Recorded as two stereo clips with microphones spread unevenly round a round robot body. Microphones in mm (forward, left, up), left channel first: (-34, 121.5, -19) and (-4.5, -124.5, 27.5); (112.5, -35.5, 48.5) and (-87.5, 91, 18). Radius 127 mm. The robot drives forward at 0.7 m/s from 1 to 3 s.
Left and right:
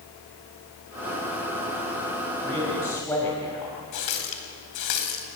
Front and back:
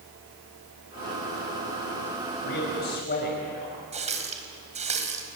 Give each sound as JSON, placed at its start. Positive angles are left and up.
{"t": 2.4, "sound": "a man speaking", "azimuth_deg": 15, "distance_m": 5.5}
{"t": 3.9, "sound": "a running tap", "azimuth_deg": 85, "distance_m": 3.5}